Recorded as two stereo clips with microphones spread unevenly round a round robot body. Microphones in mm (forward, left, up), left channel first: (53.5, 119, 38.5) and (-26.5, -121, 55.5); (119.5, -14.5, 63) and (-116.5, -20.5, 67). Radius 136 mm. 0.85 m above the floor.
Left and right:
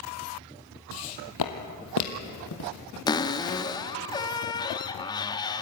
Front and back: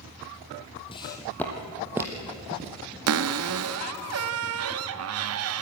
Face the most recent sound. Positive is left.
turn(degrees=145)